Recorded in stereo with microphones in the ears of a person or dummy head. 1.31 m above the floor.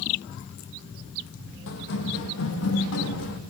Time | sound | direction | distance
1.7 | running footsteps | 65° left (ahead or behind) | 5 m